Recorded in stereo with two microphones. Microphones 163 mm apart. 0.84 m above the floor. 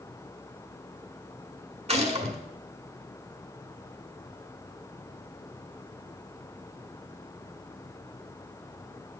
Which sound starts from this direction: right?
A gunshot, at 1.9 s.